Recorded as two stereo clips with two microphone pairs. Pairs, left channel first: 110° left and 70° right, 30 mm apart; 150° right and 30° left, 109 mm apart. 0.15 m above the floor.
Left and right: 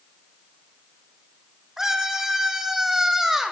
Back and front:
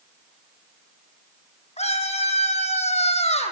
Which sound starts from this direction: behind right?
A scream, at 1.8 s.